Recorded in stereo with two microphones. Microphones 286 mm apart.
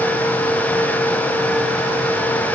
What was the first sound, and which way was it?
Only background noise.